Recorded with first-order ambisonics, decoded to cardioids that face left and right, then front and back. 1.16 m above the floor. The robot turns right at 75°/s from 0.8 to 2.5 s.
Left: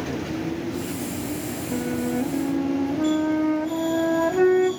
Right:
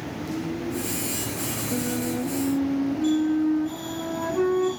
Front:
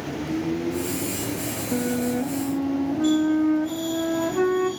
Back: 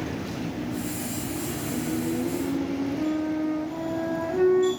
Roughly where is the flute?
Ahead.